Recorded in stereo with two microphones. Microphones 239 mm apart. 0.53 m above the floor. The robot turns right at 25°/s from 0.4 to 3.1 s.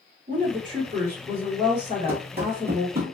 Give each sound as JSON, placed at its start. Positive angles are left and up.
{"t": 0.3, "sound": "a woman speaking", "azimuth_deg": -70, "distance_m": 1.8}
{"t": 2.1, "sound": "running footsteps", "side_deg": -40, "distance_m": 0.6}